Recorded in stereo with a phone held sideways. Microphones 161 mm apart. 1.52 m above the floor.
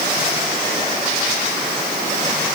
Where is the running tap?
No running tap in this recording.